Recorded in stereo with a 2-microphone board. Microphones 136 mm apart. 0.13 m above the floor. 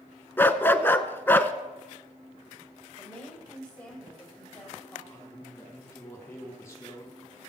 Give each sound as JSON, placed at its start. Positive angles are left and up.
{"t": 0.4, "sound": "a dog barking", "side_deg": 15, "distance_m": 0.6}
{"t": 3.0, "sound": "a woman speaking", "side_deg": 10, "distance_m": 5.0}
{"t": 5.1, "sound": "a man speaking", "side_deg": 20, "distance_m": 4.5}